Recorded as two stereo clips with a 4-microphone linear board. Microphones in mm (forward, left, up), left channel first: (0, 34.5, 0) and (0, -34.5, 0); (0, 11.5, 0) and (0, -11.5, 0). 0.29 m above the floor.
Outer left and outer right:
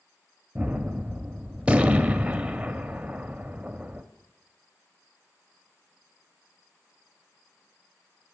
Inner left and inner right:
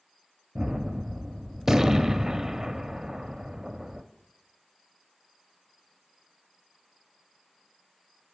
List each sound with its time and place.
0.6 s a gunshot: 20° right (ahead or behind), 0.6 m